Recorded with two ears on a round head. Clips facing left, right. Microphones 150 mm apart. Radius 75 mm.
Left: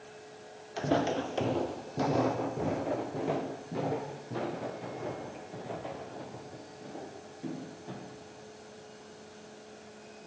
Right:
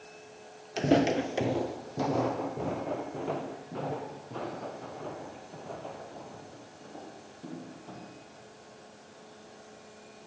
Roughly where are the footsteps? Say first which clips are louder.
Right 4 dB; right.